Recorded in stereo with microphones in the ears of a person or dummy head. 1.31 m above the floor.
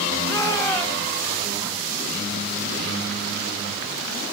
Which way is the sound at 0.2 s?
15° left (ahead or behind).